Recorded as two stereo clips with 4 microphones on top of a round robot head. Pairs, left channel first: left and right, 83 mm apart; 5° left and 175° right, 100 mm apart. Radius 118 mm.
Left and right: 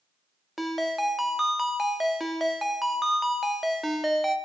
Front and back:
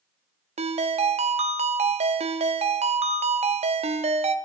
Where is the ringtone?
Straight behind, 0.7 m.